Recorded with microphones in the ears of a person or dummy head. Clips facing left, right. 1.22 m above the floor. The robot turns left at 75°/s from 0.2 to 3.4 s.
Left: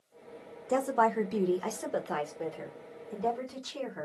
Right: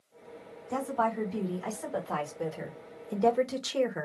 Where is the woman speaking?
125° left, 1.1 m; by 4.0 s 80° right, 1.1 m.